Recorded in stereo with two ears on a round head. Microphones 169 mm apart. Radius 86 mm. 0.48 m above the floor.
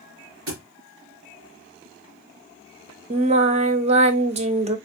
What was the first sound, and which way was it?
A thud, 85° right.